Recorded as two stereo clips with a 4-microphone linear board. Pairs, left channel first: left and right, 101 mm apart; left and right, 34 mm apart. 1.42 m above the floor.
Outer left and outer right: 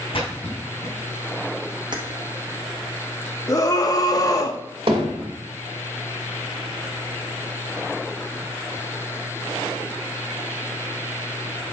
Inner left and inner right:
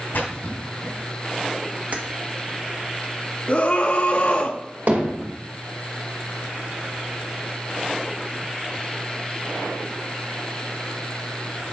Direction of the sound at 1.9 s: 45° right (ahead or behind).